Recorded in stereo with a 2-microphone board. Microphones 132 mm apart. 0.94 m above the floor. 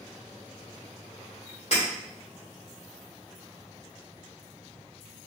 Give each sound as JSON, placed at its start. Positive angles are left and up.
{"t": 1.7, "sound": "breaking glass", "side_deg": 55, "distance_m": 2.0}